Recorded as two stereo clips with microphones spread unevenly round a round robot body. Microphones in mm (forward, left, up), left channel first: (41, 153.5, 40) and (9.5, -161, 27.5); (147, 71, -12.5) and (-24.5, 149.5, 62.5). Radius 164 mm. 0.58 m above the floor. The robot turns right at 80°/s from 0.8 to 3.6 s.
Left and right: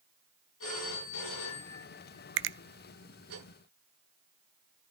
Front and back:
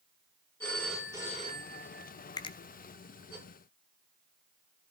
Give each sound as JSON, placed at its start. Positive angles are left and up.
{"t": 0.6, "sound": "a phone ringing", "azimuth_deg": 55, "distance_m": 6.5}
{"t": 2.4, "sound": "a finger snap", "azimuth_deg": -65, "distance_m": 0.6}